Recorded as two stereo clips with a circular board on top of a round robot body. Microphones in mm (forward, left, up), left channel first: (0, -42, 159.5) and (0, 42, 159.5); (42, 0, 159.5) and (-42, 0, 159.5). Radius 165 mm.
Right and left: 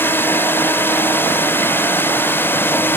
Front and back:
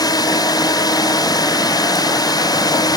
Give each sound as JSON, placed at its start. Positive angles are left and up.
{"t": 0.0, "sound": "a drone", "azimuth_deg": -30}